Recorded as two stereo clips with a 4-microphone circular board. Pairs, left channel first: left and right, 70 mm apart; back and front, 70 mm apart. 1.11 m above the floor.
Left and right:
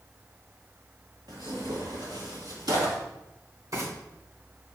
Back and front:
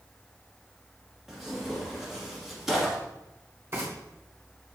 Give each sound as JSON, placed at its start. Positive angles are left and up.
{"t": 1.3, "sound": "tearing paper", "azimuth_deg": -85, "distance_m": 2.0}
{"t": 3.7, "sound": "frying", "azimuth_deg": -50, "distance_m": 4.0}